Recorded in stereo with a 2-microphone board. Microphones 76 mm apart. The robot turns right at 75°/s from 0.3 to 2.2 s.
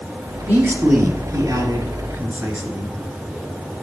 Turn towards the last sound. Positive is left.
turn(degrees=-25)